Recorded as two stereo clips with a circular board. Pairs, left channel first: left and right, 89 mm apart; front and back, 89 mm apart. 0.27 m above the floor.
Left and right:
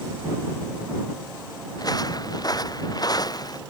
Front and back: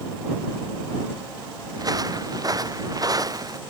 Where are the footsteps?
135° left.